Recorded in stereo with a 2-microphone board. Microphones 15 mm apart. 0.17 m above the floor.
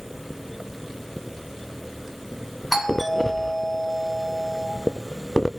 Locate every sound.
2.7 s a doorbell: 5° left (ahead or behind), 1.5 m